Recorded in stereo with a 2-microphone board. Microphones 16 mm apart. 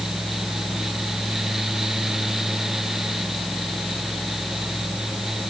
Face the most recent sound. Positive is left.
No sound to turn to.